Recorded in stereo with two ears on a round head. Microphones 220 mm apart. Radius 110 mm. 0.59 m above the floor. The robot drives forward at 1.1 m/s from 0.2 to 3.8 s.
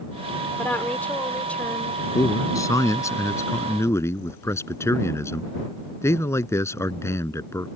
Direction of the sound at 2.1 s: 15° left (ahead or behind).